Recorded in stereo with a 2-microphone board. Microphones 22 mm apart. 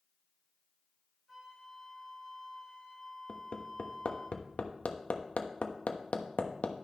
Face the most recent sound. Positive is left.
turn(degrees=75)  # may be behind; listen again after turning